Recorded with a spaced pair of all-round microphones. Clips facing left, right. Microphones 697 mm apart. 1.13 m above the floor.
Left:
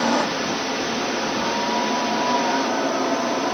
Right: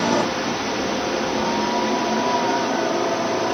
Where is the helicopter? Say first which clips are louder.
Right 1 dB; 60° right (ahead or behind); by 3.5 s 55° right (ahead or behind).